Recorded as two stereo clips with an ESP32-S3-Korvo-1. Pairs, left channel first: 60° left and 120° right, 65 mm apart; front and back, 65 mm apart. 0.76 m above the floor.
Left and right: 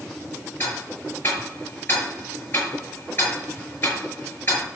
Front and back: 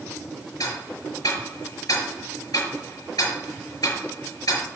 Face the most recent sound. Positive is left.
turn(degrees=5)